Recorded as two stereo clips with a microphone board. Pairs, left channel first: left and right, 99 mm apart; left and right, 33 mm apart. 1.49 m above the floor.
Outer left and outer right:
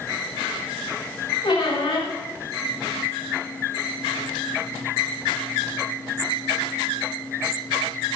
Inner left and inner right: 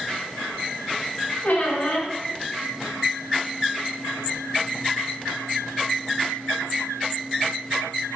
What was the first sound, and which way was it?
A squeak, 55° left (ahead or behind).